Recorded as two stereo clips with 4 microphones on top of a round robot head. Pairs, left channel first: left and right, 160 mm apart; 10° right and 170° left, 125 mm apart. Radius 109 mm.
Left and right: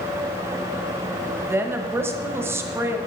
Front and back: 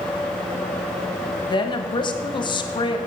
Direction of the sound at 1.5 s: 25° right.